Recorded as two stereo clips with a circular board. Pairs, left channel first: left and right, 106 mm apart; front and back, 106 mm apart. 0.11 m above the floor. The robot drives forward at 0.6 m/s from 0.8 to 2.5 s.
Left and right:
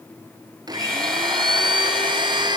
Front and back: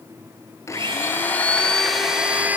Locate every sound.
0.7 s a blender: 50° right, 1.4 m; by 2.6 s 110° right, 1.3 m